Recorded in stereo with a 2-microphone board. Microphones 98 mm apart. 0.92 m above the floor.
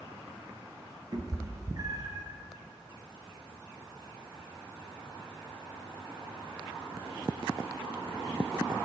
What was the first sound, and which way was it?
A cat meowing, 40° right (ahead or behind).